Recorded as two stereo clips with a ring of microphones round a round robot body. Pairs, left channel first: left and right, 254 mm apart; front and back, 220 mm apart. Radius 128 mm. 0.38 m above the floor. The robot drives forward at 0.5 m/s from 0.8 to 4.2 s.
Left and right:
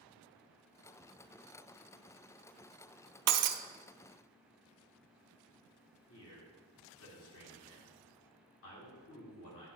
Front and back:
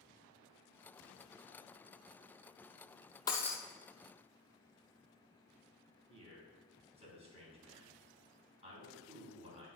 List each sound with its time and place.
3.3 s breaking glass: 75° right, 0.6 m; by 3.6 s 90° right, 0.6 m
6.1 s a man speaking: 120° left, 3.5 m